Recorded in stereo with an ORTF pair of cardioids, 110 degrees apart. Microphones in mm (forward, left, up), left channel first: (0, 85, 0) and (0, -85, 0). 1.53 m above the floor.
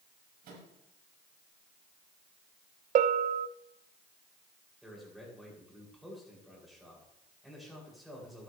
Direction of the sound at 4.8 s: Straight ahead.